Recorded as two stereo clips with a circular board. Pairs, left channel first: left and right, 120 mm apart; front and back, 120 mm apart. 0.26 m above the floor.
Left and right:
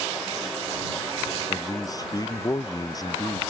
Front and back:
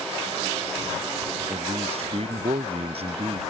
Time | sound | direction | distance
1.5 | a man speaking | 150° left | ?